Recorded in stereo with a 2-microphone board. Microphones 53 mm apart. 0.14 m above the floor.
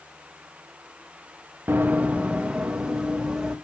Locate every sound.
1.7 s running footsteps: 40° right (ahead or behind), 0.5 m; by 3.5 s 10° right (ahead or behind), 2 m